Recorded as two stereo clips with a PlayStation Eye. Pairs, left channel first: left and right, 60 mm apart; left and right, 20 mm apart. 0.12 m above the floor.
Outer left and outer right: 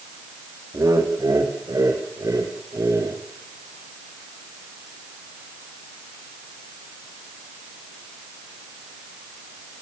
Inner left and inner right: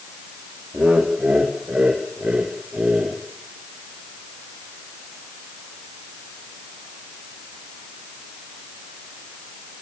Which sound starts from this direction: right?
Laughter, at 0.7 s.